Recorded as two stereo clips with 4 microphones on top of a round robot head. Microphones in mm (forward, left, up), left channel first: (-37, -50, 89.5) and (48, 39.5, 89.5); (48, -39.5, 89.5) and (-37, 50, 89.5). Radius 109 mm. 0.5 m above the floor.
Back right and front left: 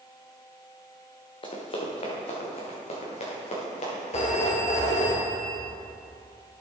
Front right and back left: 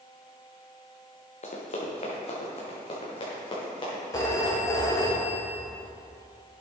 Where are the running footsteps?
85° right, 2 m; by 5.1 s 100° right, 5.5 m.